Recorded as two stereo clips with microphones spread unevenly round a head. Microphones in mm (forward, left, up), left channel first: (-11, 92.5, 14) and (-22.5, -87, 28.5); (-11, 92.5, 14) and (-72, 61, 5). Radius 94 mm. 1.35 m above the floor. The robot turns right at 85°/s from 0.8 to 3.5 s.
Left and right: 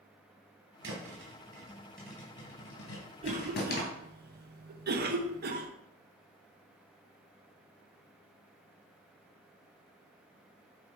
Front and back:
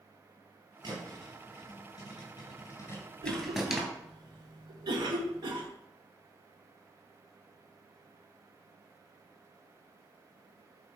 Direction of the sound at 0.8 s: 100° right.